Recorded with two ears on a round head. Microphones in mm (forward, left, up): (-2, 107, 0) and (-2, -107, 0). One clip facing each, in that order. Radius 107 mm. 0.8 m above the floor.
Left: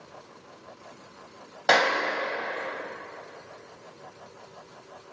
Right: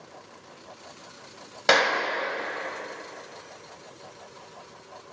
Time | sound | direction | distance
1.7 | a clap | 40° right (ahead or behind) | 3.5 m